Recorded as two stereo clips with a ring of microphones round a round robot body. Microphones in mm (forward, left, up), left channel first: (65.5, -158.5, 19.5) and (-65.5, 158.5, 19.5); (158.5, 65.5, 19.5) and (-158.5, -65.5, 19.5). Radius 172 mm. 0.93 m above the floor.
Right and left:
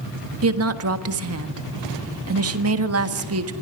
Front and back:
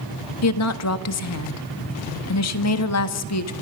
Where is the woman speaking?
65° left, 1.5 m.